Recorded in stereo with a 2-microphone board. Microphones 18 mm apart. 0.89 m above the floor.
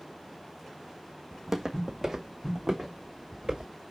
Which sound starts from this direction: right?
Footsteps, at 1.3 s.